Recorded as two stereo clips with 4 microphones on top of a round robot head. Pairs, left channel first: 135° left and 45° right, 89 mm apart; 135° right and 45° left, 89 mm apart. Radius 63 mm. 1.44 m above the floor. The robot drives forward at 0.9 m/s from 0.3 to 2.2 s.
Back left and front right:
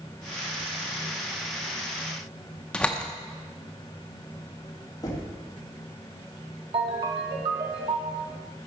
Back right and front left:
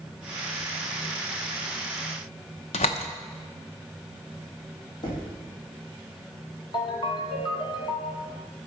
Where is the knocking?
175° right, 2.5 m.